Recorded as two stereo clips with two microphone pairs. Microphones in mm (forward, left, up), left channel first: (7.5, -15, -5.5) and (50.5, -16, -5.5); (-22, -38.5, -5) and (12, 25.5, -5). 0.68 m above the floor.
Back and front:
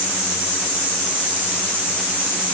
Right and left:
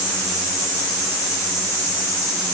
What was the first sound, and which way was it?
Only background noise.